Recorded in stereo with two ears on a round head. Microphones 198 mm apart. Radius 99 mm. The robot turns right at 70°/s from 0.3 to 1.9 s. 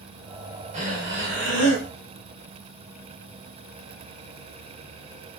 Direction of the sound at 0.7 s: 145° right.